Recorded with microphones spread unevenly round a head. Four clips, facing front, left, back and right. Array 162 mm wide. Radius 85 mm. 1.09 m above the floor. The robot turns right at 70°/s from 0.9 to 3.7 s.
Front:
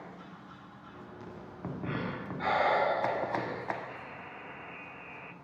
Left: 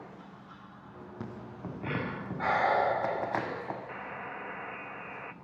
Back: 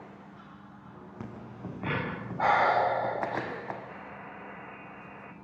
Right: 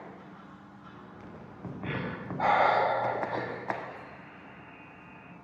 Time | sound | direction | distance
1.2 | breathing | 140° left | 7.5 m
3.9 | a buzzer | 95° left | 1.7 m